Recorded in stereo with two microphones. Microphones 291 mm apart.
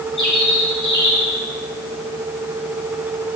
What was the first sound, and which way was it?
A bird, 85° left.